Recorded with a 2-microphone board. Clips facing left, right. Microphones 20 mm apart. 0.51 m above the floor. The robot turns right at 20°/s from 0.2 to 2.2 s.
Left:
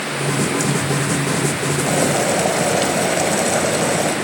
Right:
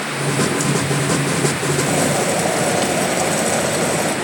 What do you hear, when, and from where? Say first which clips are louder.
1.9 s boiling: left 2 dB; 5° left (ahead or behind), 3 m; by 4.2 s 10° left (ahead or behind), 3 m